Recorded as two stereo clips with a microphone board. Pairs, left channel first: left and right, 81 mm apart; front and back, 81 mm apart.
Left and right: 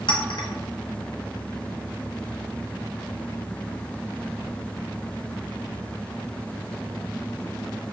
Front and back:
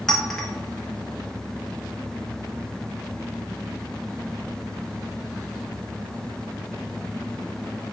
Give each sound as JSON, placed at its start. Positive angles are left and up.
{"t": 0.1, "sound": "a clink", "azimuth_deg": 85, "distance_m": 0.6}